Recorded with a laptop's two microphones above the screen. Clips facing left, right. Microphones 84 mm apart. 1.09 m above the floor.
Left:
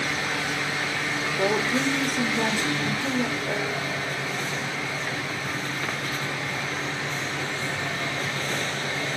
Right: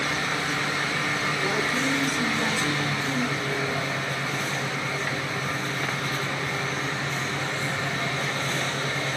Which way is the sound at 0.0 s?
30° right (ahead or behind).